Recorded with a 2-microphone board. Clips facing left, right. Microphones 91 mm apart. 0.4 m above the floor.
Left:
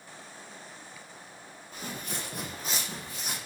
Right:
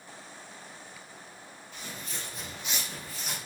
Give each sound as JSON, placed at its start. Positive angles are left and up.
{"t": 1.7, "sound": "footsteps", "side_deg": 45, "distance_m": 1.2}